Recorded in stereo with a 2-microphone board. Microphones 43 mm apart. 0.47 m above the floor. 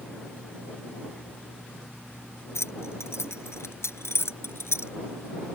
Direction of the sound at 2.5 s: 85° left.